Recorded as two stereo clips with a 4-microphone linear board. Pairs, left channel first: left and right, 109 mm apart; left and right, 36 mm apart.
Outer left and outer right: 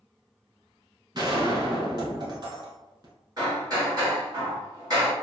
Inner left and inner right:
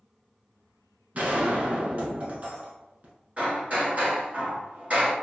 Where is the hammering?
40° right (ahead or behind), 1.9 m.